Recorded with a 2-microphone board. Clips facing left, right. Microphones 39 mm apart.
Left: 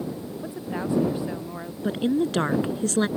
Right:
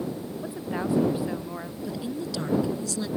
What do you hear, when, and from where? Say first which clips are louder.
0.4 s a woman speaking: even; 5° right (ahead or behind)
1.8 s a woman speaking: left 10 dB; 50° left (ahead or behind)